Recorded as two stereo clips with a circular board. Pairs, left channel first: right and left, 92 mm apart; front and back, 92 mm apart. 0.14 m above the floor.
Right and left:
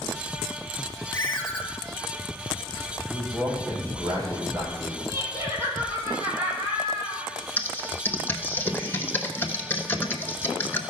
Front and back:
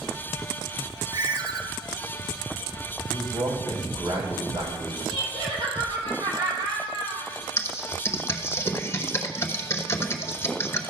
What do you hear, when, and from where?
1.1 s a ringtone: 150° right, 1.8 m
3.1 s a man speaking: 150° left, 5.5 m
5.1 s laughter: 155° left, 4.5 m
7.6 s typing on a keyboard: 40° right, 0.9 m